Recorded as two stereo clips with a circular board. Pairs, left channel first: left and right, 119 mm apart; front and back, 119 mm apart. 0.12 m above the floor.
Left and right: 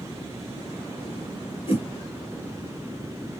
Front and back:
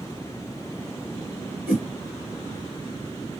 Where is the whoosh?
110° left, 2 m.